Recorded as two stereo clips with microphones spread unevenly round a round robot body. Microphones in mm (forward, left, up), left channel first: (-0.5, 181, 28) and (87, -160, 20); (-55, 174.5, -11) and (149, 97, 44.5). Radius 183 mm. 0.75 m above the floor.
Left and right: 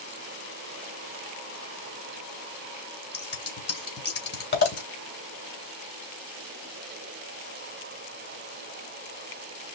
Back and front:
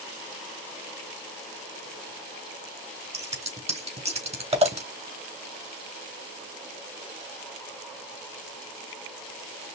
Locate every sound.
3.1 s scissors: 45° left, 3.5 m